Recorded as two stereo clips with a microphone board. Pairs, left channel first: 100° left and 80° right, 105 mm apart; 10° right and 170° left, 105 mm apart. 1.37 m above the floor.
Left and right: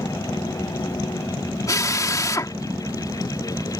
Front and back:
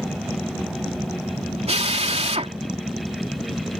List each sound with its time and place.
1.7 s a drill: 160° left